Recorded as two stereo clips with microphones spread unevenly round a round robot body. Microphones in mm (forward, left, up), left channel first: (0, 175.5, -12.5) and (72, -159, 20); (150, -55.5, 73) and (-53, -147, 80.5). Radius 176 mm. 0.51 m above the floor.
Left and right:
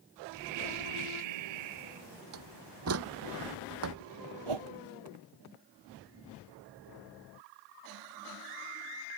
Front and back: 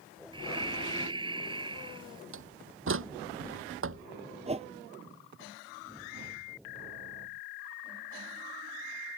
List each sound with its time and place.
0.3 s breathing: 85° right
2.3 s a door slam: 130° right
4.5 s a whoosh: 95° right